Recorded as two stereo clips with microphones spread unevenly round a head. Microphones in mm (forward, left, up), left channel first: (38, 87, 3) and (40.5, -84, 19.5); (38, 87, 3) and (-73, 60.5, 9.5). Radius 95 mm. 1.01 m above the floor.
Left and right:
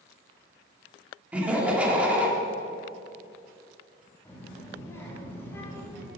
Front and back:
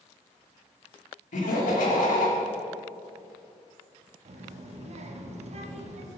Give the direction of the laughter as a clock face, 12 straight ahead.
12 o'clock.